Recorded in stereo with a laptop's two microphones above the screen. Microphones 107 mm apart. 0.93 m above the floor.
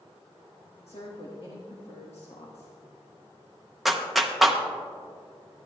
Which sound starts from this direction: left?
A woman speaking, at 0.9 s.